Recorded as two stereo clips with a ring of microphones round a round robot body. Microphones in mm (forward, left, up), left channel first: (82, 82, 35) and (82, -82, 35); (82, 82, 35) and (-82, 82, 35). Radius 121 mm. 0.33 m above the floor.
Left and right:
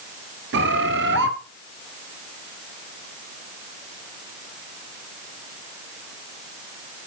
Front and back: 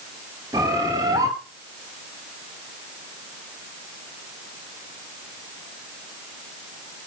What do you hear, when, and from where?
0.5 s a bird: 105° right, 1.0 m